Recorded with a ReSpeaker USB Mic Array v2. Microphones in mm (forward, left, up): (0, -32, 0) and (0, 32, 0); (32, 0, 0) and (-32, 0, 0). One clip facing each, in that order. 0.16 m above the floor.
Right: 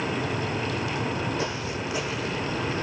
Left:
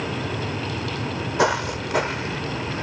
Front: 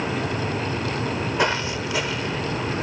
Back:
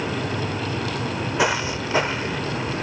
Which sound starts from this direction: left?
Footsteps, at 1.4 s.